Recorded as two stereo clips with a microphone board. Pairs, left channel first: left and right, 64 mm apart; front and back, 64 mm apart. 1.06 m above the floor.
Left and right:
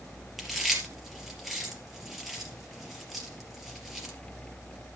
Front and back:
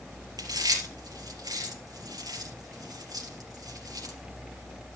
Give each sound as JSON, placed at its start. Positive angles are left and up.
{"t": 0.4, "sound": "chewing", "azimuth_deg": 180, "distance_m": 3.5}